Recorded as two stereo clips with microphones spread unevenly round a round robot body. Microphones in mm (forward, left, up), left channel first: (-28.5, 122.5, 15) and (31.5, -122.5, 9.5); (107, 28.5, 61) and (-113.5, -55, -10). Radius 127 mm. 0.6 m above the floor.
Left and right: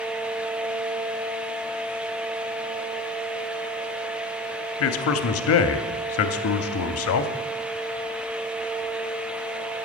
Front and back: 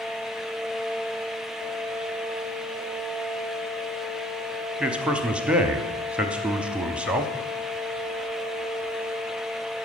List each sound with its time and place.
4.8 s a man speaking: 125° left, 0.9 m